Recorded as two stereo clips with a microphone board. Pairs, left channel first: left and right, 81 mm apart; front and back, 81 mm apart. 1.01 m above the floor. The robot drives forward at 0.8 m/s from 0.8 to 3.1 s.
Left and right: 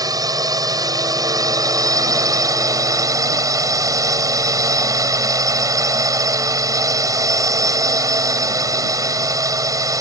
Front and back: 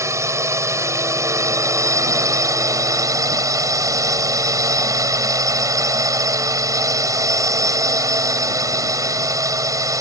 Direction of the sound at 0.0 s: 130° right.